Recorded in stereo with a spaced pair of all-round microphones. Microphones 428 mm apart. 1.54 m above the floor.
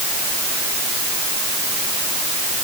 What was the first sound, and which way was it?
Only background noise.